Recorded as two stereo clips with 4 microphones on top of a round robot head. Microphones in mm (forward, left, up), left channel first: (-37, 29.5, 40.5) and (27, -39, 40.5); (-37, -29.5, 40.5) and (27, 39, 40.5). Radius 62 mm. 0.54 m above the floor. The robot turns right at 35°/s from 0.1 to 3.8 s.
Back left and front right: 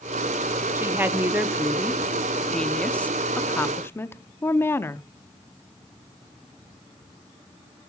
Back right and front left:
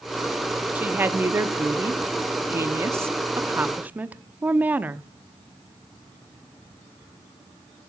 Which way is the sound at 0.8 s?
5° right.